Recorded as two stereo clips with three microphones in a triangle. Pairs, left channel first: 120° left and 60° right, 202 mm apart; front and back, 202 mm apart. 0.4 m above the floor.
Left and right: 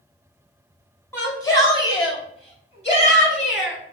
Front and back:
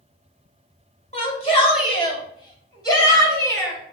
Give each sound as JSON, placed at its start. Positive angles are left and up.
{"t": 1.1, "sound": "a shout", "azimuth_deg": 45, "distance_m": 2.0}